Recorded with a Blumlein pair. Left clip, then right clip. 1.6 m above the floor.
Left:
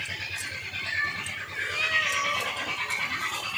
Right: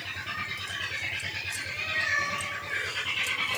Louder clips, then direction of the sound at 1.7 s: Left 3 dB; 65° left.